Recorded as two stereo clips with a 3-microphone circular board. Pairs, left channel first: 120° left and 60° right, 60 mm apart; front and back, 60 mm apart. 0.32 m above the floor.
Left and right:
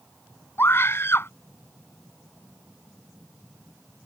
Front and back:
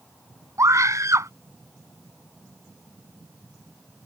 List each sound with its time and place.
0.6 s a scream: 160° left